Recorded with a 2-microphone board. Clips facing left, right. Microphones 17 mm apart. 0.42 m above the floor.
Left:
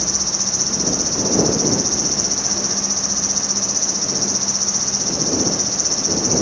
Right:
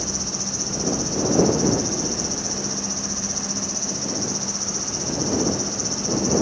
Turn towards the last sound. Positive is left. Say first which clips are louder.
# left 6 dB
turn(degrees=30)  # may be behind; listen again after turning